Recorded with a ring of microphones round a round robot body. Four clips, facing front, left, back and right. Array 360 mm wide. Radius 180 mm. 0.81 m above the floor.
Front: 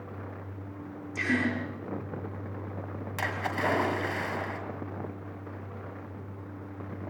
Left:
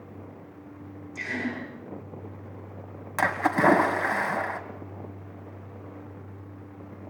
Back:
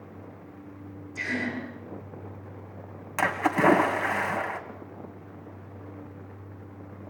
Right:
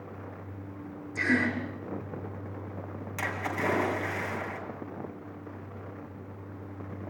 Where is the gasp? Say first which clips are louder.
Right 5 dB, front 3 dB; 60° right, 7.5 m.